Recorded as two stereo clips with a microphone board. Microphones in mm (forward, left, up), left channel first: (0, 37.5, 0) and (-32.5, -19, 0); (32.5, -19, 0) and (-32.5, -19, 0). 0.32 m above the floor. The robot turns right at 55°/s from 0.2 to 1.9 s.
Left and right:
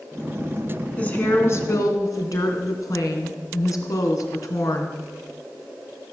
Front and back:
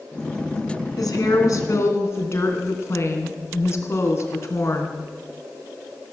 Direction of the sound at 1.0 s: 10° right.